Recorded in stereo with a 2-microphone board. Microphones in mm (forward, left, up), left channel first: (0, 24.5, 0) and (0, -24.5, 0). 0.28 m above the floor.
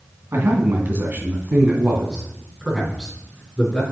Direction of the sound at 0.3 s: 55° right (ahead or behind).